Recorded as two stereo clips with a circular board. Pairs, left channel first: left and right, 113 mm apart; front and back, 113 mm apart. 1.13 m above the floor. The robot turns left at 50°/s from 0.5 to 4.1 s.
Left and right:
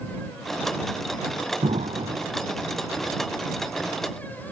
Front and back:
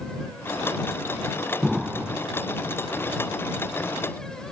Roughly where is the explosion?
Right.